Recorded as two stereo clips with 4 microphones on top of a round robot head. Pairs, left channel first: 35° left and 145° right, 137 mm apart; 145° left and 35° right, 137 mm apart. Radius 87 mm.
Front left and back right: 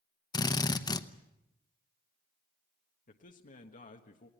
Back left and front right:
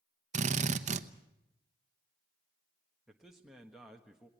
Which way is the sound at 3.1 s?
50° left.